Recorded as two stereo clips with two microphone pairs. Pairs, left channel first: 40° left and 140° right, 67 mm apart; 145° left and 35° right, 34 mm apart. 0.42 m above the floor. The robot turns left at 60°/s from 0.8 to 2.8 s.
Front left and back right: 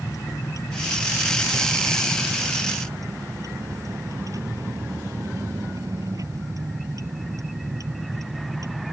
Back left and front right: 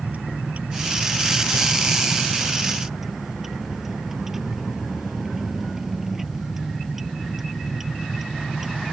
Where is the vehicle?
5° left; by 8.9 s 115° right.